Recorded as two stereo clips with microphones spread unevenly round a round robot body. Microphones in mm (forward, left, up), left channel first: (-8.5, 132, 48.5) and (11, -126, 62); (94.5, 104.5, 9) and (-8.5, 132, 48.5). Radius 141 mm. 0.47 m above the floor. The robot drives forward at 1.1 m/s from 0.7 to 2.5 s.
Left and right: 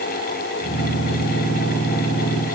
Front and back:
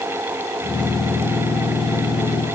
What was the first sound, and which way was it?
Only background noise.